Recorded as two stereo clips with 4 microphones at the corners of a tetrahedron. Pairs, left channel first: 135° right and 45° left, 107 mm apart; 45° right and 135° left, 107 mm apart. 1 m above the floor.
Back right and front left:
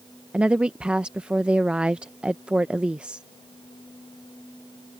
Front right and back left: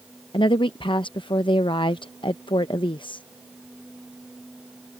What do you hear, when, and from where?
0.3 s a woman speaking: 35° right